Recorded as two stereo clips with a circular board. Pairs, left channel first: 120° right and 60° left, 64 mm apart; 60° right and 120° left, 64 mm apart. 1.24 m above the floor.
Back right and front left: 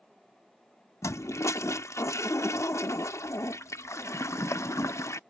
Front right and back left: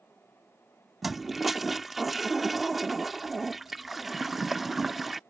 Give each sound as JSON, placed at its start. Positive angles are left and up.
{"t": 1.0, "sound": "a toilet flushing", "azimuth_deg": -150}